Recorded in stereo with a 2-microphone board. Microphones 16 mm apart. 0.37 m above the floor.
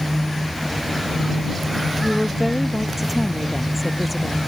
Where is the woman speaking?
25° right (ahead or behind); by 4.4 s 10° right (ahead or behind).